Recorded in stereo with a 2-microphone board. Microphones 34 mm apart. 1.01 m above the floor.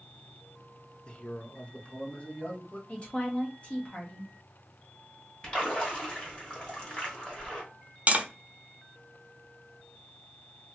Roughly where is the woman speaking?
Left.